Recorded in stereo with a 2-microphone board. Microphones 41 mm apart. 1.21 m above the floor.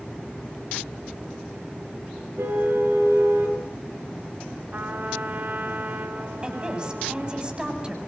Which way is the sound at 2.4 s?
85° right.